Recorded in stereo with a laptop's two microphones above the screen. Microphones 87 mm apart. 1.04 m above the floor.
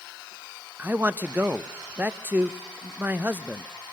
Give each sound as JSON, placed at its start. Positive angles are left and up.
{"t": 0.8, "sound": "a man speaking", "side_deg": -20, "distance_m": 0.8}